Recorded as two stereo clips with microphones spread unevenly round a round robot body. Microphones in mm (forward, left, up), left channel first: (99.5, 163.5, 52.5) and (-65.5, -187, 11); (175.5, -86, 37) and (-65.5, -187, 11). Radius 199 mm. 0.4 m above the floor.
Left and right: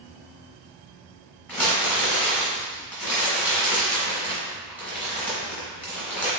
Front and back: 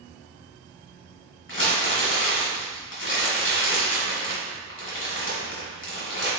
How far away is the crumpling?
About 1.1 m.